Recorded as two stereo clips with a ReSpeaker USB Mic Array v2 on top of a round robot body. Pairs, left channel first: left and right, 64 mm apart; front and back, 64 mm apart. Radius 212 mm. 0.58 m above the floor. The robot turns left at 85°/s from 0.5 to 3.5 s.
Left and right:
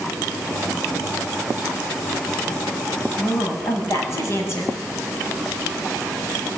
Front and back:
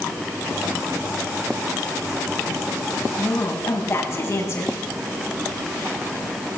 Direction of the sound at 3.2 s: 70° left.